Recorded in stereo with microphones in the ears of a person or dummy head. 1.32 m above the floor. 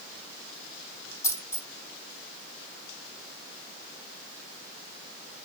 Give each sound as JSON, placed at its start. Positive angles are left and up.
{"t": 1.2, "sound": "a dropped coin", "side_deg": 30, "distance_m": 1.7}